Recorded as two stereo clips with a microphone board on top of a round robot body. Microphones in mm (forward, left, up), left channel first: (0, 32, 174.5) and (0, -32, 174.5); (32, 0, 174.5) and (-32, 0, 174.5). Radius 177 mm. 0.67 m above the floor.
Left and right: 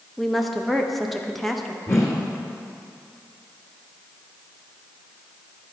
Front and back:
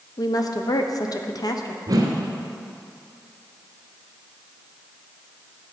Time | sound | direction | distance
0.2 | a woman speaking | straight ahead | 1.2 m
1.9 | a whoosh | 140° left | 1.3 m